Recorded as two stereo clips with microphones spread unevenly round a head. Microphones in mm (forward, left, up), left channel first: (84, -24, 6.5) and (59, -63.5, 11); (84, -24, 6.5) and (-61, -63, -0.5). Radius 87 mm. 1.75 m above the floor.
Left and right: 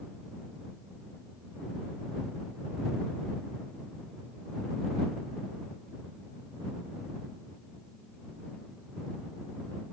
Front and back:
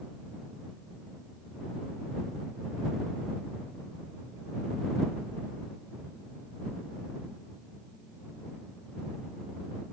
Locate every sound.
Only background noise.